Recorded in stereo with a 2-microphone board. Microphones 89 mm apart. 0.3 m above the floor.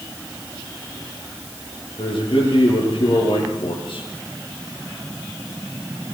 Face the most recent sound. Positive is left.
turn(degrees=75)  # may be behind; listen again after turning